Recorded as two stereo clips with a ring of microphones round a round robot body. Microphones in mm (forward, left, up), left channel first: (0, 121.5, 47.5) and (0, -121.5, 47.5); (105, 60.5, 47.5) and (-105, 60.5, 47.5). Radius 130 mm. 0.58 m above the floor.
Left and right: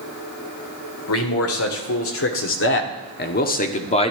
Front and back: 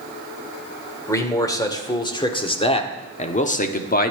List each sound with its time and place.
1.1 s a man speaking: 75° left, 2 m; by 4.1 s 30° left, 1.2 m